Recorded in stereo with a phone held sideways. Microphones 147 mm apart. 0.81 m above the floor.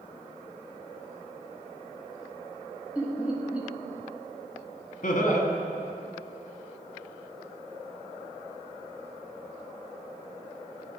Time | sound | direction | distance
3.0 | laughter | 10° right (ahead or behind) | 1.0 m
5.0 | laughter | 60° left (ahead or behind) | 1.1 m